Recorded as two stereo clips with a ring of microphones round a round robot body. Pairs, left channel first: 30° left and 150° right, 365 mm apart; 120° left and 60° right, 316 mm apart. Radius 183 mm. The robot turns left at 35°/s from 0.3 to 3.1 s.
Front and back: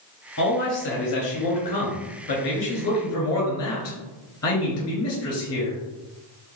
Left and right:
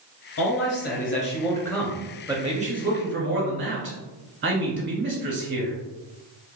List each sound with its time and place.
0.4 s a man speaking: 85° left, 1.7 m; by 5.8 s 10° right, 1.7 m